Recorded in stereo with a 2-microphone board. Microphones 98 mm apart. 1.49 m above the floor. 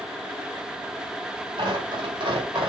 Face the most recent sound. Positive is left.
turn(degrees=-50)  # may be behind; listen again after turning